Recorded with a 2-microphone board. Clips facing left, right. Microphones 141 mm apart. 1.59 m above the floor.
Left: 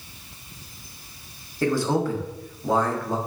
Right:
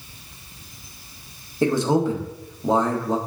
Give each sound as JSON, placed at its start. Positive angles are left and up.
{"t": 1.6, "sound": "a man speaking", "side_deg": -20, "distance_m": 0.7}